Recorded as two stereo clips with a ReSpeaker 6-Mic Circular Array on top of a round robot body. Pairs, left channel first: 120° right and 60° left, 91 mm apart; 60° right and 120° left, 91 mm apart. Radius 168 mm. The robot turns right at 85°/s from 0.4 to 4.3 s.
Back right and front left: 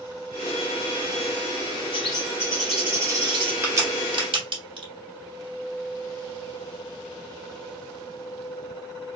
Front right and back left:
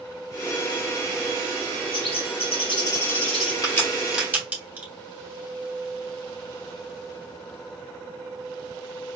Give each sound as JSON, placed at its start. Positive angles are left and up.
{"t": 1.9, "sound": "a bird", "azimuth_deg": -95, "distance_m": 2.0}
{"t": 3.6, "sound": "a crack", "azimuth_deg": -10, "distance_m": 2.0}